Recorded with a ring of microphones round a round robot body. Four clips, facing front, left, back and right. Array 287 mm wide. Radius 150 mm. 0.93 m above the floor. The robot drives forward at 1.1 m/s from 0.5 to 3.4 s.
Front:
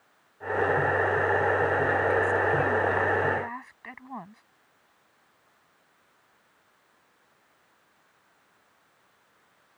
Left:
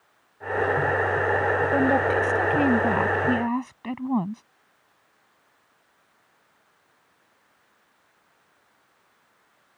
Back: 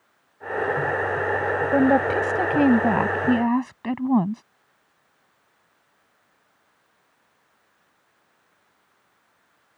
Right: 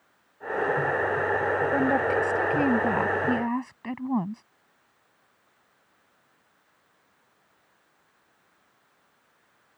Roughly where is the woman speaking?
Behind.